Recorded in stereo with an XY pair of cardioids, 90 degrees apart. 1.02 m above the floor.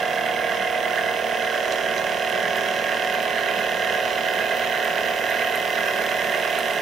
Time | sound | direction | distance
0.0 | a machine running | 60° right | 1.1 m